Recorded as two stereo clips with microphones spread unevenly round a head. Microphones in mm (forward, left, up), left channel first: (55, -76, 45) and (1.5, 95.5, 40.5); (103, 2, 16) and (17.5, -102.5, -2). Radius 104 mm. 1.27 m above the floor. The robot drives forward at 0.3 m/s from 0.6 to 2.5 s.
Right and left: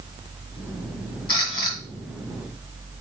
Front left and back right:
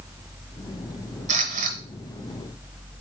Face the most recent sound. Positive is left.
turn(degrees=-145)